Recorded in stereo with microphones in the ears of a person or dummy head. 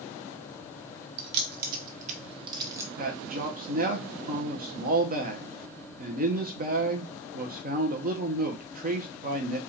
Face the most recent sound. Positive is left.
turn(degrees=-45)  # may be behind; listen again after turning